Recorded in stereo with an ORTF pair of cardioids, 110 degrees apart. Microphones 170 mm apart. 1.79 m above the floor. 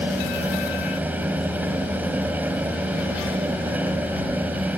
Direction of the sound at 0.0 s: 10° right.